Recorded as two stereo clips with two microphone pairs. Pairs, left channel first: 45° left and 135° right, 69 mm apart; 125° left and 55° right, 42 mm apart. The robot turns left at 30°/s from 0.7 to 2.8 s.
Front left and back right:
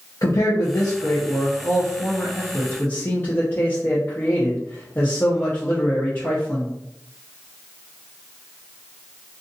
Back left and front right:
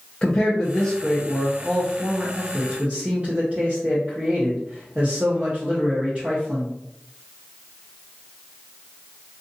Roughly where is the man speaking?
Ahead left.